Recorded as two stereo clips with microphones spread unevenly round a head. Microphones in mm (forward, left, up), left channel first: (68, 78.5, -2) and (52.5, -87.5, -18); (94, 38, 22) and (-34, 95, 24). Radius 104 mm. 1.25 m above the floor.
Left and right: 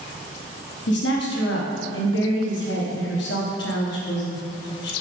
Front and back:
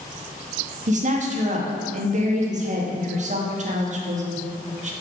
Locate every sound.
0.9 s a woman speaking: 125° left, 2.0 m